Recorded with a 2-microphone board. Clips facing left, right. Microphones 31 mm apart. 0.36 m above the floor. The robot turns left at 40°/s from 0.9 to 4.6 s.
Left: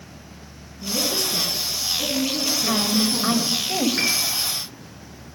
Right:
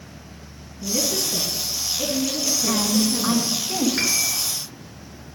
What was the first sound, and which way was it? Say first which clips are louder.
A woman speaking: even; 135° right.